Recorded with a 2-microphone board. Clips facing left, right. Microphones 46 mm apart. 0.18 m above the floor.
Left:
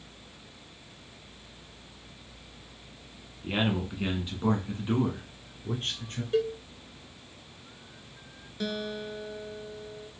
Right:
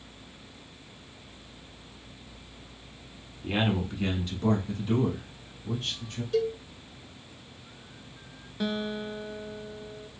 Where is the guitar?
15° right (ahead or behind), 0.5 m.